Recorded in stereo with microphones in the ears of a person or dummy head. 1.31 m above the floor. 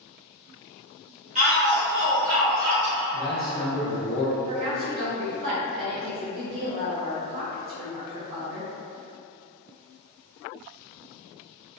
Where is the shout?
35° right (ahead or behind), 0.8 m; by 3.0 s 60° right (ahead or behind), 1.1 m.